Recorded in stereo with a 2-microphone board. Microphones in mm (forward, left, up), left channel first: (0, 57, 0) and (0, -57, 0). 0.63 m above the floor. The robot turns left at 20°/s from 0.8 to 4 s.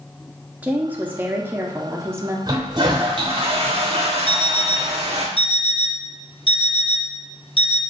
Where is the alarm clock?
50° left (ahead or behind), 0.6 m.